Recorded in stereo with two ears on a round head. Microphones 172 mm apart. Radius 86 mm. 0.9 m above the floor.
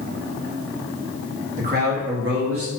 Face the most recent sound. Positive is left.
turn(degrees=-80)